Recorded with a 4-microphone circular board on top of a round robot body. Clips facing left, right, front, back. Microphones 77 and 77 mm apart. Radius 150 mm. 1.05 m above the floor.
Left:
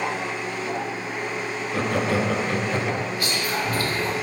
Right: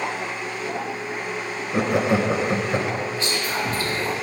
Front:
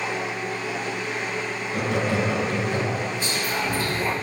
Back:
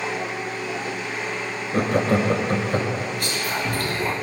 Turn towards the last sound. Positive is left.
turn(degrees=-150)